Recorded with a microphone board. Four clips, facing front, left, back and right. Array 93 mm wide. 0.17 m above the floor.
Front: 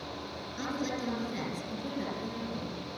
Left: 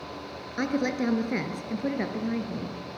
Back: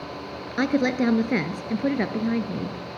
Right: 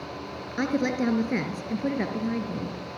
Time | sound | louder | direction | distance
0.6 | a woman speaking | right 1 dB, back 13 dB | 175° right | 2.5 m